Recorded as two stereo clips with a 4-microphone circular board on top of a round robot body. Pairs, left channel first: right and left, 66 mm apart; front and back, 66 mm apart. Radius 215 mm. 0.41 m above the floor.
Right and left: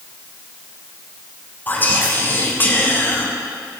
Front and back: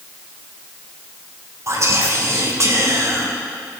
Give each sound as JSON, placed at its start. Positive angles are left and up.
{"t": 1.7, "sound": "whispering", "azimuth_deg": -145, "distance_m": 2.5}